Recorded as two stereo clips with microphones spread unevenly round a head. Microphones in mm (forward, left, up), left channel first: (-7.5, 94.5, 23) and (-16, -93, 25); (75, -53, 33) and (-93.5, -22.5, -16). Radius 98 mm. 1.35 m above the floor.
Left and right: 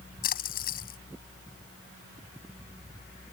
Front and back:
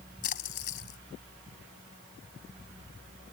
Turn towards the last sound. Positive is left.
turn(degrees=40)